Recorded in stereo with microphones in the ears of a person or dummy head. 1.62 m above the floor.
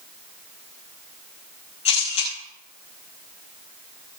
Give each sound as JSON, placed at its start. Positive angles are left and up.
{"t": 1.9, "sound": "a camera shutter", "side_deg": 40, "distance_m": 6.0}